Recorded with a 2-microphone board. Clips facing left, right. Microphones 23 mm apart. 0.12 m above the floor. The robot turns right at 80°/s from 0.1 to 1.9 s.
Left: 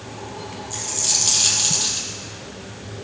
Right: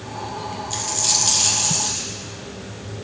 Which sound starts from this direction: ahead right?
A dropped coin, at 0.7 s.